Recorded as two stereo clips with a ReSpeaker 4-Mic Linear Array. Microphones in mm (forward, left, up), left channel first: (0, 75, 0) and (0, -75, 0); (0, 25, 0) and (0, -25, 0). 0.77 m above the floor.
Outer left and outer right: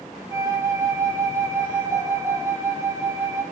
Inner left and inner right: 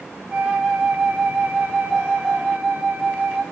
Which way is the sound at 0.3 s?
20° right (ahead or behind).